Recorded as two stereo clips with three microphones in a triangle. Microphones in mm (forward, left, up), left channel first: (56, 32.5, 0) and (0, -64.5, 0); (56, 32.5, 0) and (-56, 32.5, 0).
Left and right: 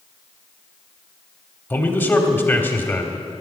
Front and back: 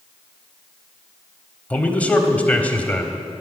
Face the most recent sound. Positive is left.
turn(degrees=45)